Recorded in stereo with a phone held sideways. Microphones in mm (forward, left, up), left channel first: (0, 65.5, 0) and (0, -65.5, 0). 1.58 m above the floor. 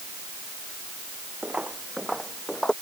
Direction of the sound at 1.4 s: 10° right (ahead or behind).